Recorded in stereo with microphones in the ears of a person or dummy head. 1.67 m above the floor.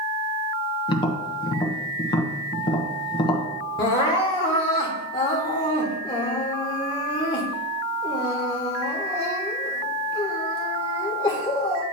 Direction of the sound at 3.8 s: 20° left (ahead or behind).